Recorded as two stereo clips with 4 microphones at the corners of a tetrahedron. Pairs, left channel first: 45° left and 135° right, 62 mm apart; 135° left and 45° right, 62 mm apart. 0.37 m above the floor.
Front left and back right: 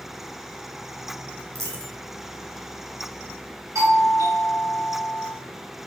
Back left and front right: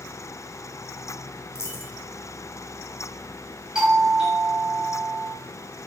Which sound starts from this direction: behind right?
A doorbell, at 3.8 s.